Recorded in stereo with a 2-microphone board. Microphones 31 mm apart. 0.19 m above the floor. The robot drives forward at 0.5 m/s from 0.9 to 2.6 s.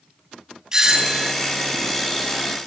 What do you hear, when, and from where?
0.7 s a doorbell: 20° right (ahead or behind), 1.5 m